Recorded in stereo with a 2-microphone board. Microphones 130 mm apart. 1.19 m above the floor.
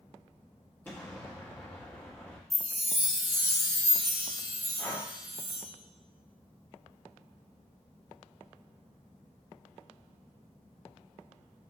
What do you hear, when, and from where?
0.8 s an explosion: 15° left (ahead or behind), 1.1 m
2.5 s a chime: centre (ahead or behind), 1.8 m
4.8 s breathing: 10° left (ahead or behind), 1.1 m